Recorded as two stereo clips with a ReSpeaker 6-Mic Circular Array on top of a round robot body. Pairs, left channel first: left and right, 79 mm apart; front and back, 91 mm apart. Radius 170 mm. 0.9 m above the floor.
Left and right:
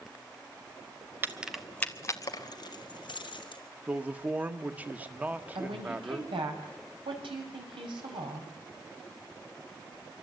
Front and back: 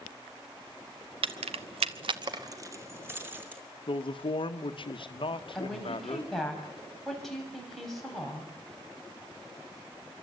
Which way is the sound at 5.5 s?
90° right.